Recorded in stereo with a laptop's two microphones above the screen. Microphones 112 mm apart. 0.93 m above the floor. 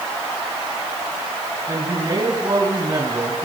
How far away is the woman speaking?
About 6.5 m.